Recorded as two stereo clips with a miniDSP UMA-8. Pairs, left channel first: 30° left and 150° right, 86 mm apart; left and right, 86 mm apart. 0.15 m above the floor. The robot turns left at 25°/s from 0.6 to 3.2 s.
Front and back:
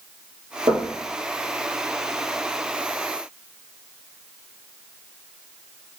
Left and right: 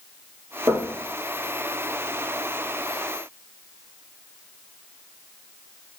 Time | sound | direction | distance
0.7 | knocking | 135° right | 3 m